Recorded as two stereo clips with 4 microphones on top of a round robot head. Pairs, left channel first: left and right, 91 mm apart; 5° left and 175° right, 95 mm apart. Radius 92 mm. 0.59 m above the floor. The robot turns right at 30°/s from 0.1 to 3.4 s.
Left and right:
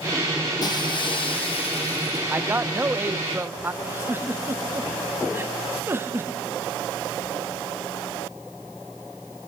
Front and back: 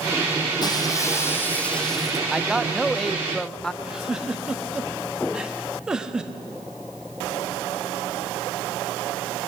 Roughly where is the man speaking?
Right.